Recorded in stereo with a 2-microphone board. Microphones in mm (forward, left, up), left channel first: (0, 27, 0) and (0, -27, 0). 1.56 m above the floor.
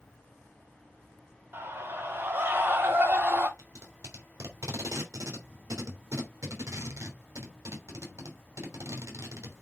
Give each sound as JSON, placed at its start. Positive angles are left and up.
{"t": 1.5, "sound": "a scream", "side_deg": -55, "distance_m": 5.0}
{"t": 3.6, "sound": "tape being pulled", "side_deg": -75, "distance_m": 3.0}